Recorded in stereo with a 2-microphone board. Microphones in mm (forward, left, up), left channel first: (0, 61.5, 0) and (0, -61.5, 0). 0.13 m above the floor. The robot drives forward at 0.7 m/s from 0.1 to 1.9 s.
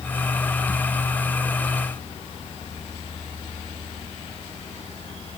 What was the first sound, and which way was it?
Only background noise.